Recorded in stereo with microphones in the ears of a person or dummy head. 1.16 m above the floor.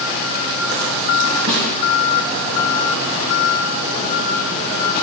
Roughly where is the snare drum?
Right.